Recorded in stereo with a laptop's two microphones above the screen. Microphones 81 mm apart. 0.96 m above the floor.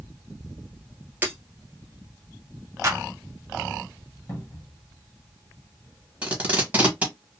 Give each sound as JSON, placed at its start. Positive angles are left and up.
{"t": 1.2, "sound": "breaking glass", "side_deg": -25, "distance_m": 1.4}
{"t": 2.8, "sound": "a clap", "side_deg": -40, "distance_m": 0.7}
{"t": 4.3, "sound": "a cupboard door", "side_deg": 40, "distance_m": 1.3}
{"t": 6.2, "sound": "tape being pulled", "side_deg": -20, "distance_m": 1.4}